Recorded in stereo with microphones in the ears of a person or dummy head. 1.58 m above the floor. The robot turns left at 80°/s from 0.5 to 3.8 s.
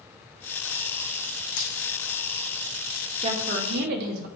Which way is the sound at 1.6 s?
60° left (ahead or behind).